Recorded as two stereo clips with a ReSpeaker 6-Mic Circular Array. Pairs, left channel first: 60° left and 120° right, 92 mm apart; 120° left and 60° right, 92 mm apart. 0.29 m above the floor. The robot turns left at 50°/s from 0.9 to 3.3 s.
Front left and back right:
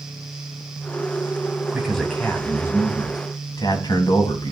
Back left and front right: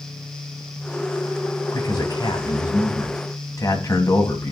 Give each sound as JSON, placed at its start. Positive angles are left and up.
{"t": 1.7, "sound": "a man speaking", "azimuth_deg": 160, "distance_m": 2.5}